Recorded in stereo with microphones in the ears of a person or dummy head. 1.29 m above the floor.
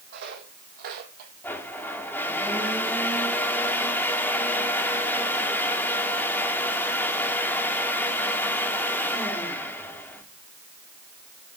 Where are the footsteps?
60° right (ahead or behind), 3.5 m; by 1.3 s 50° right (ahead or behind), 2 m.